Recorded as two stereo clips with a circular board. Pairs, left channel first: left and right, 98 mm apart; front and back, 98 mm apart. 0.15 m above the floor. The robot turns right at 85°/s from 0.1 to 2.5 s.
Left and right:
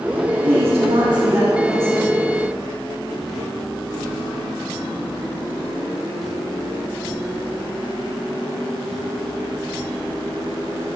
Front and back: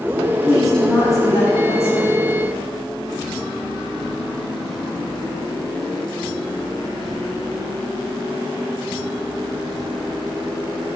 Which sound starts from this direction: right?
A woman speaking, at 0.5 s.